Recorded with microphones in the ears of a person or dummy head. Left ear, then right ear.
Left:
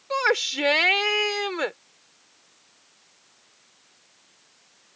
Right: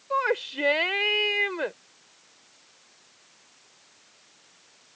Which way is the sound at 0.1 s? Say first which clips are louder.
Left 3 dB; 85° left.